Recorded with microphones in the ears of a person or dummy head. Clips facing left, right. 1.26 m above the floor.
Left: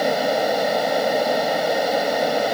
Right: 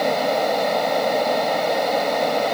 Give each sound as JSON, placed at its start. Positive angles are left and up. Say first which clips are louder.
{"t": 0.0, "sound": "a fan", "louder": "even", "side_deg": 10}